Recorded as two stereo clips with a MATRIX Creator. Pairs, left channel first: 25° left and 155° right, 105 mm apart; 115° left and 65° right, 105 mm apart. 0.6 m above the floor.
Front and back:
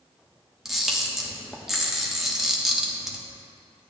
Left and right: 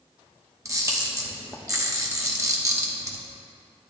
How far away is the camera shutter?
About 1.1 m.